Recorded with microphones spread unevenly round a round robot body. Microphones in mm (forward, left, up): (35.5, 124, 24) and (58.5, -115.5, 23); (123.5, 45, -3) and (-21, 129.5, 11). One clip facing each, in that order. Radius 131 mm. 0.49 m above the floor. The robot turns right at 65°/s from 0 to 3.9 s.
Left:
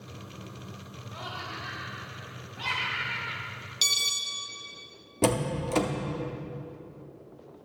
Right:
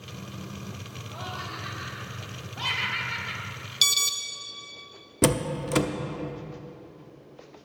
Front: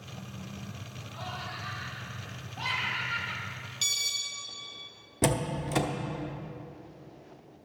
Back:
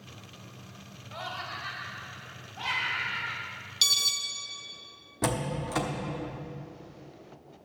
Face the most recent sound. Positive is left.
turn(degrees=-50)